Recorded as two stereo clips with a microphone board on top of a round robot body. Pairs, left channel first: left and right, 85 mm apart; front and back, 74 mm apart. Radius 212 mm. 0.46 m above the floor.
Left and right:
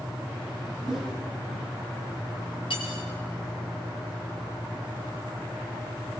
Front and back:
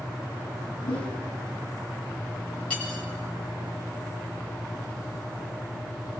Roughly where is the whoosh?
Ahead.